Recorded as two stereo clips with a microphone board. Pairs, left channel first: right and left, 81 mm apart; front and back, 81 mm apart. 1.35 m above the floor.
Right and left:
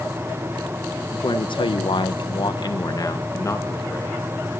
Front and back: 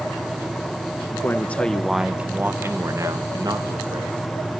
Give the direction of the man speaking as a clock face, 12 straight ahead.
2 o'clock.